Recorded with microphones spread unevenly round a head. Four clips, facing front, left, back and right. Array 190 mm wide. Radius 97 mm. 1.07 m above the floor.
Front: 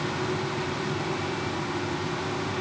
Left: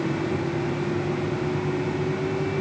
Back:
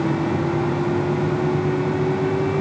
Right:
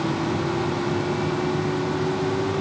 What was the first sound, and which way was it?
Only background noise.